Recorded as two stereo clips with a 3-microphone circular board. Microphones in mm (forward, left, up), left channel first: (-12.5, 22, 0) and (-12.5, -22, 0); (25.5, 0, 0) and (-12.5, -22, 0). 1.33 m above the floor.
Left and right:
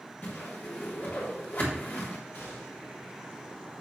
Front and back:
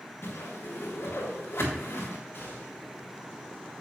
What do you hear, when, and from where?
0.2 s a whoosh: 50° left, 3.5 m
2.3 s a gunshot: 60° left, 5.5 m